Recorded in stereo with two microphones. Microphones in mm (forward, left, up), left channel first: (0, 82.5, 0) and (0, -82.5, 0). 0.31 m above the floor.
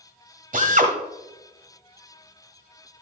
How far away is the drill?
About 1.6 m.